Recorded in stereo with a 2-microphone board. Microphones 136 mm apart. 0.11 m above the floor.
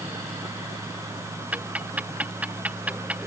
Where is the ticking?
10° right (ahead or behind).